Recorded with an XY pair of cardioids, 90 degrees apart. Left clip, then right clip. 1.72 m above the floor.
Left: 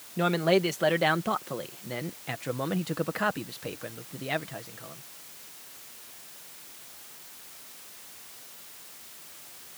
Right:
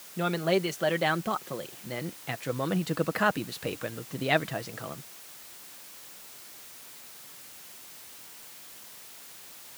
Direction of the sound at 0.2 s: 20° left.